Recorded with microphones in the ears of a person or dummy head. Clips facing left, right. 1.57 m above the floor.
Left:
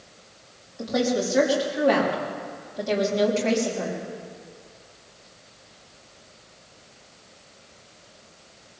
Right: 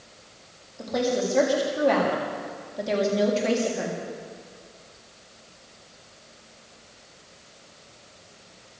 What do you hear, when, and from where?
0.8 s a woman speaking: 15° left (ahead or behind), 4 m; by 4.0 s 10° right (ahead or behind), 3.5 m